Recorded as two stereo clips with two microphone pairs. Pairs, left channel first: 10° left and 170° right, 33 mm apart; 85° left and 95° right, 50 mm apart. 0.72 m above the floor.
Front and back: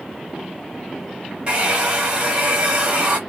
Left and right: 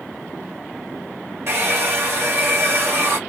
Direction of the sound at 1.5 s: 120° right.